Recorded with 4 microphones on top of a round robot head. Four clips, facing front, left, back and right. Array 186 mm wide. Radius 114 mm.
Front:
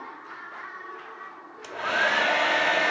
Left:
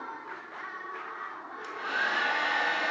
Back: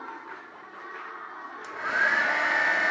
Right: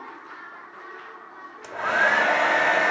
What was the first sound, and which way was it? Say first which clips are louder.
A hair dryer: right 10 dB, front 2 dB; 70° right.